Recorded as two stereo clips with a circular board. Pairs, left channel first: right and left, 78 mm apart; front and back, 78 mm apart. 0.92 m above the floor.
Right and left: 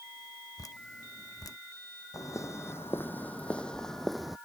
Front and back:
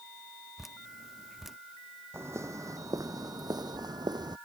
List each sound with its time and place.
0.6 s dripping: 95° right
2.1 s footsteps: 130° right; by 4.4 s 175° left